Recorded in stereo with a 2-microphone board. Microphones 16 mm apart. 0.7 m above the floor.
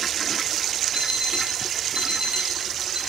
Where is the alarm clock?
65° right (ahead or behind), 2.5 m.